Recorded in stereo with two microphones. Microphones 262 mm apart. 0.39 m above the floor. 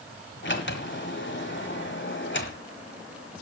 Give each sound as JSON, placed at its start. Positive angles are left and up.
{"t": 0.4, "sound": "a sliding door", "side_deg": 45, "distance_m": 1.4}